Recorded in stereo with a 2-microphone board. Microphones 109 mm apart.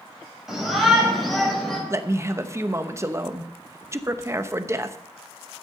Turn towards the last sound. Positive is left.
turn(degrees=-25)  # may be behind; listen again after turning